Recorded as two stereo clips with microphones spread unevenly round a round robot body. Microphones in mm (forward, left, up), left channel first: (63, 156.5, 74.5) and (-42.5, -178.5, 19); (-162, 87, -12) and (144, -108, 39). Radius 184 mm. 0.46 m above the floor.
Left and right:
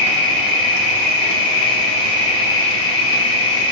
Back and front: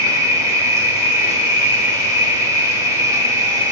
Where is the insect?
55° left, 0.7 m.